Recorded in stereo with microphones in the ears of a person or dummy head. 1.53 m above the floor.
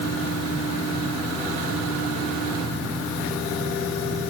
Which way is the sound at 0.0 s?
35° right (ahead or behind).